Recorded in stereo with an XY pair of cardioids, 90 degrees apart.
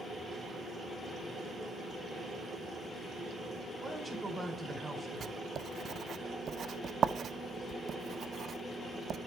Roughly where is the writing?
Ahead right.